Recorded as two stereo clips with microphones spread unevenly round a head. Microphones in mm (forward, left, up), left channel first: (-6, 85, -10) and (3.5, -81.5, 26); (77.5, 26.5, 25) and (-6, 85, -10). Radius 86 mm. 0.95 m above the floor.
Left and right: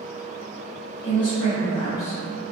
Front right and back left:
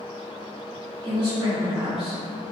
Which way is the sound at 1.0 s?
140° left.